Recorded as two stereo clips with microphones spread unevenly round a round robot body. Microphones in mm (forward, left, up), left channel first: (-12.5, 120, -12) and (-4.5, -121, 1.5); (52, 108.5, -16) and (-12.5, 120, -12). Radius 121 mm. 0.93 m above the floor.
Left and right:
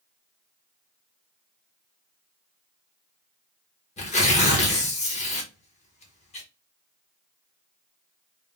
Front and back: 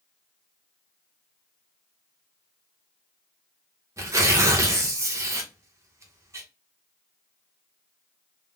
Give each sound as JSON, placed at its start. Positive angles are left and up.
{"t": 4.0, "sound": "tearing paper", "azimuth_deg": 145, "distance_m": 0.9}